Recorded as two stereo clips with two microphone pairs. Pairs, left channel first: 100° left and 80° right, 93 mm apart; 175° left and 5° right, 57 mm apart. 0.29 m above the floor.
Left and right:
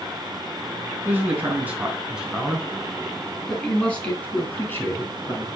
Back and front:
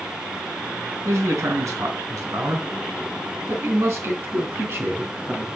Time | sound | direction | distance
1.1 | a man speaking | 15° right | 3.5 m